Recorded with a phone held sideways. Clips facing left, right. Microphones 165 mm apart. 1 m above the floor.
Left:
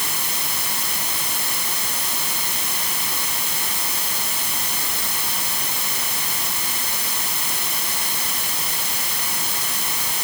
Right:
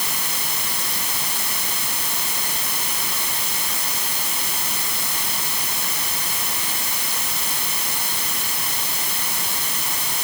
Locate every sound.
Only background noise.